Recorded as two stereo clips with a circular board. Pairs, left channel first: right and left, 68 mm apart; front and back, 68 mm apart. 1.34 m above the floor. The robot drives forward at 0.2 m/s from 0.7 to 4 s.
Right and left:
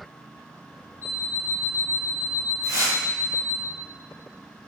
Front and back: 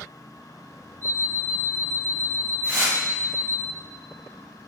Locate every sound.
1.0 s an alarm clock: 120° left, 1.4 m; by 3.6 s 140° left, 1.7 m
2.6 s tearing paper: 65° left, 1.0 m; by 3.0 s 70° left, 0.9 m